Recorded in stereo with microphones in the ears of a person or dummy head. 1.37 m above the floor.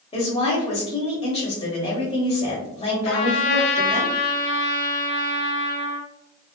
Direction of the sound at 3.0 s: 65° left (ahead or behind).